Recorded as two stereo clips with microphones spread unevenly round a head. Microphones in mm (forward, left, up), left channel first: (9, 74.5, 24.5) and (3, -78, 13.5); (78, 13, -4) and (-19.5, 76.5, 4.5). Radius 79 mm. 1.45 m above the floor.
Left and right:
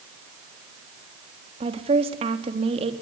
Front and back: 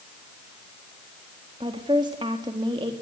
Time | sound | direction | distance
1.6 | a woman speaking | 145° right | 3.5 m